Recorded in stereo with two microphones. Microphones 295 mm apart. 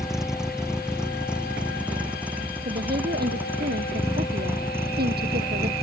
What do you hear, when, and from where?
0.0 s a vehicle: centre (ahead or behind); by 5.8 s 10° right (ahead or behind)
2.6 s a woman speaking: 35° right (ahead or behind)